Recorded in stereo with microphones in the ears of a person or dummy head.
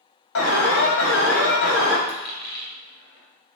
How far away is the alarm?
About 2 m.